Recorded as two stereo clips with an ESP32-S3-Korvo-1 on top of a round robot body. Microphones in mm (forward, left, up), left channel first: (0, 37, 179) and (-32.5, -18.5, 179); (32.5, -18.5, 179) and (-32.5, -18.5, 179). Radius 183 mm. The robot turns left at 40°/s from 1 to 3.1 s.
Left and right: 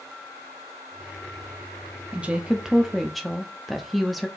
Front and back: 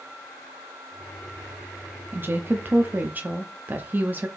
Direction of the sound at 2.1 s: 170° right.